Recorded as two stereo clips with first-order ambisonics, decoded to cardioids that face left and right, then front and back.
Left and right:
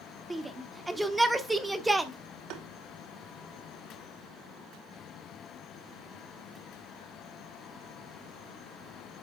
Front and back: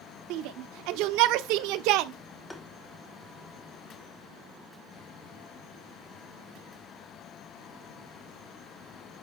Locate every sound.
0.3 s a shout: 175° right, 1.1 m
2.5 s tapping: 80° right, 1.4 m